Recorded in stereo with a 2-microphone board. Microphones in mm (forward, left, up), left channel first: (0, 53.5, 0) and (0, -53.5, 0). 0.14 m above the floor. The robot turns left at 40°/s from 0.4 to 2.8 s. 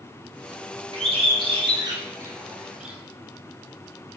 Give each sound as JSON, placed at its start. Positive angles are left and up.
{"t": 0.9, "sound": "a bird", "side_deg": -60, "distance_m": 0.9}